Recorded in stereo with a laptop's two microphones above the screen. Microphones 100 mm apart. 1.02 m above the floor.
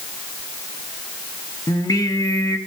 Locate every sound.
1.7 s singing: 40° left (ahead or behind), 1.2 m